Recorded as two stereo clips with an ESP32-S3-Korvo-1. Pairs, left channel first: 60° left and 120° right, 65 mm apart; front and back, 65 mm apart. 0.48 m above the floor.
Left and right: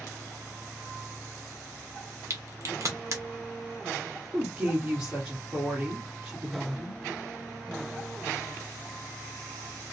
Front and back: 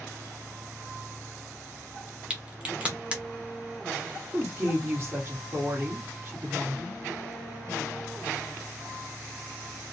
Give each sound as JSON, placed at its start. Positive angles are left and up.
{"t": 2.3, "sound": "a crack", "azimuth_deg": -110, "distance_m": 0.8}
{"t": 4.3, "sound": "a woman speaking", "azimuth_deg": -175, "distance_m": 1.4}